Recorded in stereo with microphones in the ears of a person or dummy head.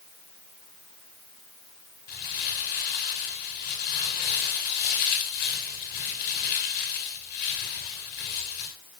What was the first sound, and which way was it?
Crumpling, 50° left (ahead or behind).